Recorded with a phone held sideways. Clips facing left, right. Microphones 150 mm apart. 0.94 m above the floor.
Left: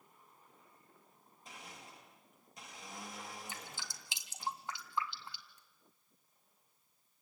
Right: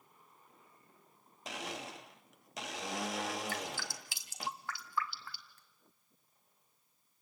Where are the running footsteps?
No running footsteps in this recording.